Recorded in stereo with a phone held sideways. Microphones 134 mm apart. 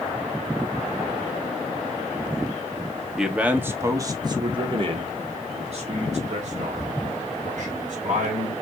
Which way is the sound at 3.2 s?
Centre (ahead or behind).